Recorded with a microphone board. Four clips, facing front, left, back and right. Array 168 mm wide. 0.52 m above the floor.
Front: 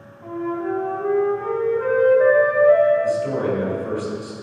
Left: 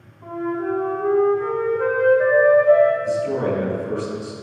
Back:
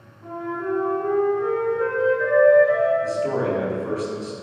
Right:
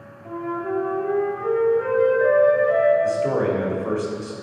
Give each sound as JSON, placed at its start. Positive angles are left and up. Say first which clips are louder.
{"t": 0.2, "sound": "a flute", "louder": "left 3 dB, front 3 dB", "azimuth_deg": 45, "distance_m": 4.0}
{"t": 3.0, "sound": "a man speaking", "louder": "right 1 dB, front 2 dB", "azimuth_deg": -100, "distance_m": 3.0}